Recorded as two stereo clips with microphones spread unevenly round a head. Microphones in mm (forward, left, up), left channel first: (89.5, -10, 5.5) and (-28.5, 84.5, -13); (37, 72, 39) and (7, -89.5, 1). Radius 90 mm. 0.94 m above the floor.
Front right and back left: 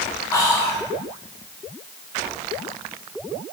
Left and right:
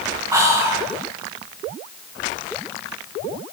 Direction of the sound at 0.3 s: 100° right.